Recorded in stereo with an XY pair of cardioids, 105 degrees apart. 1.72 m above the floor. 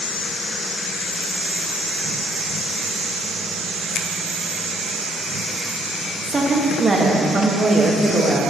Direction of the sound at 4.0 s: 55° left.